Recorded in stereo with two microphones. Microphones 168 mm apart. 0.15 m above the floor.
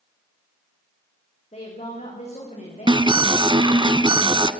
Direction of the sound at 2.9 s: 25° right (ahead or behind).